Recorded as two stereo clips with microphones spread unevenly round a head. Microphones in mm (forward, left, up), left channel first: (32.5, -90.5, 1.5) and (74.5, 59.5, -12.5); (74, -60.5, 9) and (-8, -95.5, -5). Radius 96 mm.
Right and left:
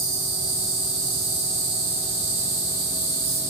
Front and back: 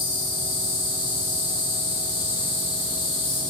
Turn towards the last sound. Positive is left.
turn(degrees=65)